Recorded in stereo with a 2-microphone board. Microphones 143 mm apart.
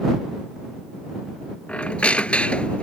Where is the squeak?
10° left (ahead or behind).